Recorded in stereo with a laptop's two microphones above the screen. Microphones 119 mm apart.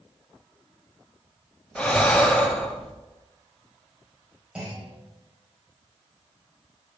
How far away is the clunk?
About 4 m.